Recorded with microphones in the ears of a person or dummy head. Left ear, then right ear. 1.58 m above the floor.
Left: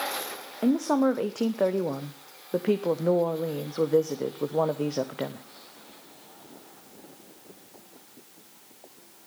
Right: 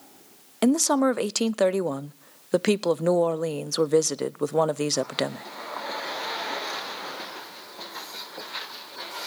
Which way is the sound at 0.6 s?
80° right.